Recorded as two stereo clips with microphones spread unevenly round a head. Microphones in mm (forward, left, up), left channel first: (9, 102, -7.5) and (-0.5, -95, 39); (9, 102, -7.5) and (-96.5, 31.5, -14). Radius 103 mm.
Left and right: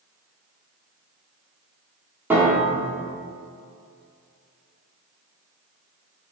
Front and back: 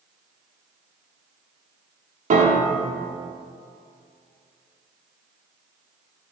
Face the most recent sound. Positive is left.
turn(degrees=-175)